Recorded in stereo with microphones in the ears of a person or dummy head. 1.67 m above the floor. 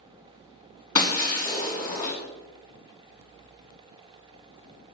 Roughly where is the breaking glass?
Centre.